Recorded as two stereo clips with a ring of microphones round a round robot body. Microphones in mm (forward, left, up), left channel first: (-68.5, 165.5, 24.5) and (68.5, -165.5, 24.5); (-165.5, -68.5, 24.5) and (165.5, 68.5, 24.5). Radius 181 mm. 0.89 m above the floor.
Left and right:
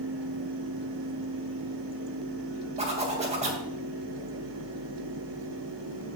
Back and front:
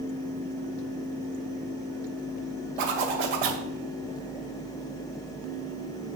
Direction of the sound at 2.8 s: 5° left.